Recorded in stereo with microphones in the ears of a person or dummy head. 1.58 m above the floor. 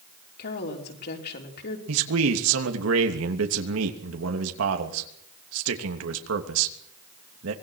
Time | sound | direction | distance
0.4 | a woman speaking | 55° left (ahead or behind) | 5 m
1.9 | a man speaking | 80° right | 3 m